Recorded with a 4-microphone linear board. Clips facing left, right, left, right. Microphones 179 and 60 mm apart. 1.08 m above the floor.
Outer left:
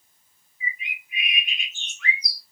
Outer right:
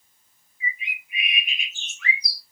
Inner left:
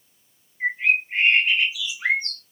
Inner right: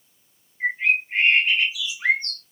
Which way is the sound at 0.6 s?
Centre (ahead or behind).